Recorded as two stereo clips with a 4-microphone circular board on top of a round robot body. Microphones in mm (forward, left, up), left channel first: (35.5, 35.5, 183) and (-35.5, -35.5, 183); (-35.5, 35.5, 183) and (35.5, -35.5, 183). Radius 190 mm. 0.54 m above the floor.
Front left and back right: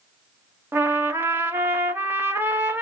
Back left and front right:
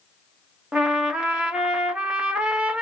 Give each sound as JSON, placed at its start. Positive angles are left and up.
{"t": 0.7, "sound": "a trumpet", "azimuth_deg": -110, "distance_m": 1.1}